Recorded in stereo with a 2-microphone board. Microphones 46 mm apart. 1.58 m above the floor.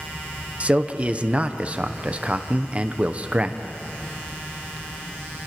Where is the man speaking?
30° right (ahead or behind), 1.0 m.